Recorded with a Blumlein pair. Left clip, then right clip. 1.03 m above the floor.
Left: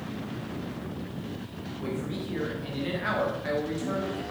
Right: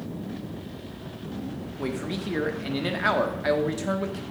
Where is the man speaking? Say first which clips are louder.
Right 3 dB; 25° right, 1.8 m.